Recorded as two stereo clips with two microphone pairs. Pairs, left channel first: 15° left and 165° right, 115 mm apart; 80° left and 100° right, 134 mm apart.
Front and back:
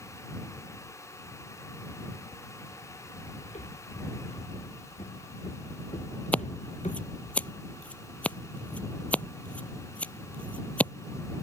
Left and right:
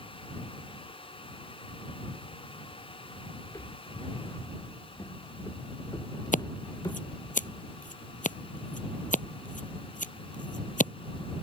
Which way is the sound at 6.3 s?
90° left.